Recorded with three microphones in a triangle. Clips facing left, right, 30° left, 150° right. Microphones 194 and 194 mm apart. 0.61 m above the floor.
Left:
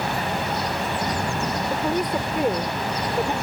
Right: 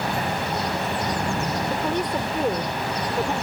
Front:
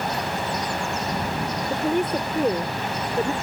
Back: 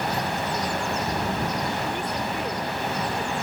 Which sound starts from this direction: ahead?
A woman speaking, at 1.7 s.